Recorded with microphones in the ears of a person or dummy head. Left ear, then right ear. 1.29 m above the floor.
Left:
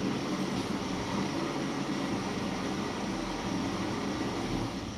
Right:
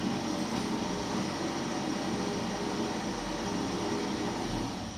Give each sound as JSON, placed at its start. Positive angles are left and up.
{"t": 0.0, "sound": "an engine running", "side_deg": -60, "distance_m": 1.1}